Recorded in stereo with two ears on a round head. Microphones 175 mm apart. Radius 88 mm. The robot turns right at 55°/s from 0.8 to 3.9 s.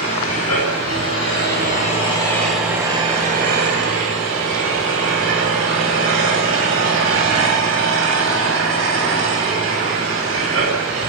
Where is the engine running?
85° left, 8 m; by 11.1 s 105° right, 8 m.